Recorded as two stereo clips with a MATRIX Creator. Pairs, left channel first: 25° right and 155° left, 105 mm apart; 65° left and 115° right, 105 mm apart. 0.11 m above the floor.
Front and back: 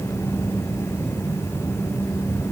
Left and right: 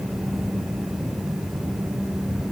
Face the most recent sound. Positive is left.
No sound to turn to.